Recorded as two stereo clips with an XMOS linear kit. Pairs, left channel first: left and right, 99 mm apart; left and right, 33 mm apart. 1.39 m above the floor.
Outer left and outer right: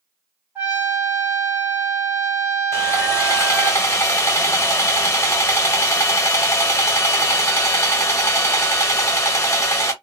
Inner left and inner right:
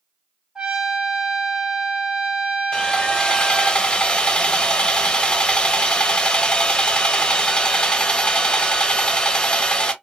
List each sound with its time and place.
0.6 s a trumpet: 15° right (ahead or behind), 1.9 m
2.7 s sawing: 30° left (ahead or behind), 0.7 m